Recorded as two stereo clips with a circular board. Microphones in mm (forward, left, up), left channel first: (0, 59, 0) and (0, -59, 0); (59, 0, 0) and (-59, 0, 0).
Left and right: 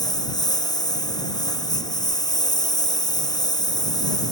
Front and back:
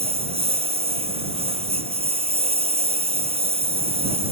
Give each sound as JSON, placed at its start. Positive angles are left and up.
{"t": 0.0, "sound": "a lawn mower", "azimuth_deg": 145}